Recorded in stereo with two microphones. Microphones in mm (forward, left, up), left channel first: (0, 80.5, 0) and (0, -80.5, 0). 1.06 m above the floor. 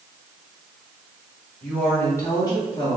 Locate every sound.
1.6 s a woman speaking: 5° left (ahead or behind), 1.9 m; by 3.0 s 35° left (ahead or behind), 1.7 m